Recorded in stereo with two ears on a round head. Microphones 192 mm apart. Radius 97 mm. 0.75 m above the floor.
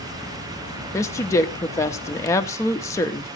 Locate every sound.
0.9 s a woman speaking: 15° left (ahead or behind), 0.8 m